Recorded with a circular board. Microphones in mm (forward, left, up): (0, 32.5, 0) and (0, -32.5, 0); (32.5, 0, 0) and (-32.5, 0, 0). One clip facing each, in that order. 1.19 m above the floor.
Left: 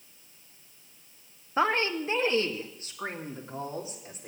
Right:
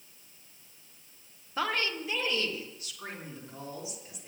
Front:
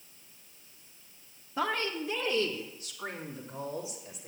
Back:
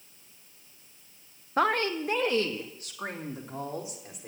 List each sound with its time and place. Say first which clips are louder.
1.6 s a woman speaking: left 5 dB, back 6 dB; 150° left, 1.1 m; by 4.3 s 140° left, 4.5 m